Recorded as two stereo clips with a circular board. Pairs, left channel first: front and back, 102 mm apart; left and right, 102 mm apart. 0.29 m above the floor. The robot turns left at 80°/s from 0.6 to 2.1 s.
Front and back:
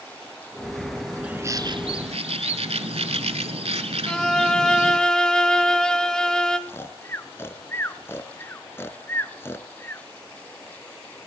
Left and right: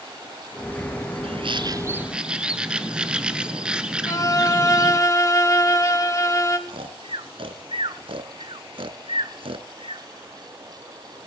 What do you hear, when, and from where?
1.2 s a bird: 100° right, 0.9 m; by 5.0 s 170° right, 0.9 m
4.1 s a violin: 75° left, 1.0 m
6.7 s snoring: 65° right, 0.7 m